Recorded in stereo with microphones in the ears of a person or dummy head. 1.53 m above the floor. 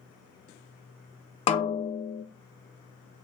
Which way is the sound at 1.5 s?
30° left (ahead or behind).